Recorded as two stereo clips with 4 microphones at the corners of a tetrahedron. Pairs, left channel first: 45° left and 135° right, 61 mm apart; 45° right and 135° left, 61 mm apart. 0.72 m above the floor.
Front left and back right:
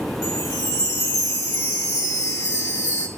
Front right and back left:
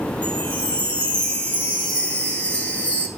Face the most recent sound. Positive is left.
turn(degrees=20)